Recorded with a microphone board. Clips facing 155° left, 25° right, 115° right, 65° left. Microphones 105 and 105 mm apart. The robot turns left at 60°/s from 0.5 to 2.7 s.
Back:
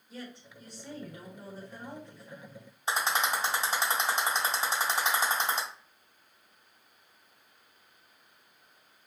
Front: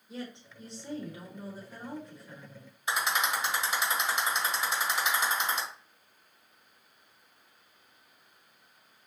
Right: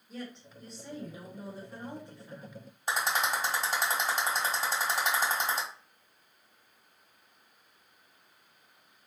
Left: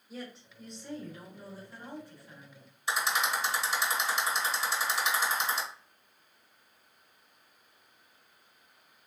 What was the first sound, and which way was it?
A woman speaking, 15° right.